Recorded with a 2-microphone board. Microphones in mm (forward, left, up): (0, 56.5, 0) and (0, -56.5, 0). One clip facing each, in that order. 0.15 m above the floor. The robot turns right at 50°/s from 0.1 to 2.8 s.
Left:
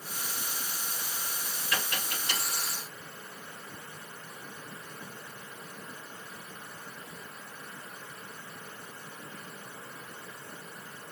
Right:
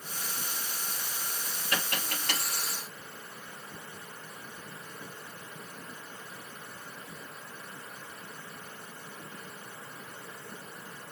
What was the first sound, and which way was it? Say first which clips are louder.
Tapping: right 1 dB; 40° right (ahead or behind).